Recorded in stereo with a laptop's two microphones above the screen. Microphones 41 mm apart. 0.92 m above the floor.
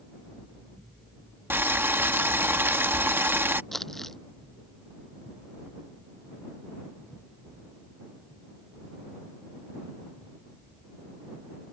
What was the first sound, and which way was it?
Boiling, 60° right (ahead or behind).